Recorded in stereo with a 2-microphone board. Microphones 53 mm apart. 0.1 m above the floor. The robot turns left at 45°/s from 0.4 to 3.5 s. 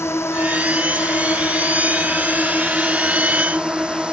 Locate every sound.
0.0 s a drone: 115° left; by 4.1 s 25° right